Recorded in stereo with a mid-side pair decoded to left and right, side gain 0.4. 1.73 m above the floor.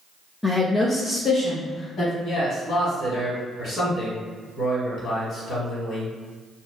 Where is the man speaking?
65° left, 1.7 m.